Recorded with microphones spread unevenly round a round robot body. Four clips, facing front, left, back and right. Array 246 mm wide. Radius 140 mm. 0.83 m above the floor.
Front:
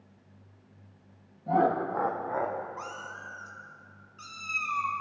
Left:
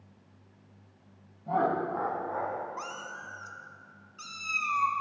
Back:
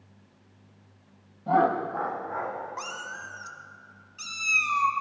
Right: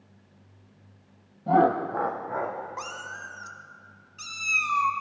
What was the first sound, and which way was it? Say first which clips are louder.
Laughter: right 7 dB, back 2 dB; 105° right.